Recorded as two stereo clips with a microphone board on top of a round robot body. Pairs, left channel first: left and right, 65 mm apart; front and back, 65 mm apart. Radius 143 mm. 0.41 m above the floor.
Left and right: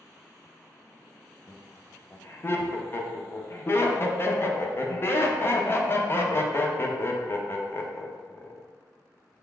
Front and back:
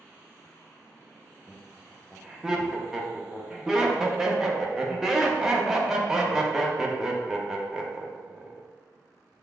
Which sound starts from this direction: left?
Laughter, at 1.5 s.